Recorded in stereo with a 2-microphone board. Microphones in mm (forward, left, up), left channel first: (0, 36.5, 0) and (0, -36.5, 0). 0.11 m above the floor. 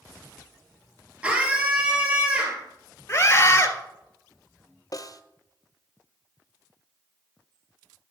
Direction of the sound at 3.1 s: 30° left (ahead or behind).